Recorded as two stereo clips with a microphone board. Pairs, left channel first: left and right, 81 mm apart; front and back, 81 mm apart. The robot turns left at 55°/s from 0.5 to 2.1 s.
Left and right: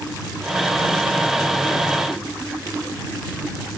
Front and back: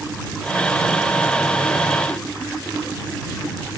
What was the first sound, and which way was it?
Only background noise.